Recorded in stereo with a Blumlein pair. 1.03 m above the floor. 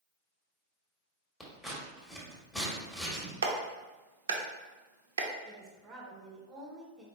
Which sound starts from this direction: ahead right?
A woman speaking, at 5.5 s.